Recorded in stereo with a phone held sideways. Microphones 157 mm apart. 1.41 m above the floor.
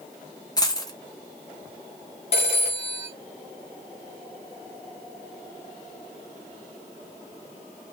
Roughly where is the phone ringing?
Left.